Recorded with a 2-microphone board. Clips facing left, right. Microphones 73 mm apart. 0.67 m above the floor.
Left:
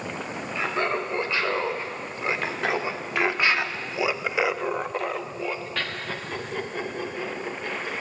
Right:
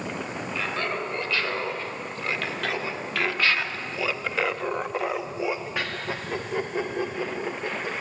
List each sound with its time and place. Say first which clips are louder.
0.6 s laughter: left 4 dB; 20° left (ahead or behind), 2.5 m; by 8.0 s 20° right (ahead or behind), 2 m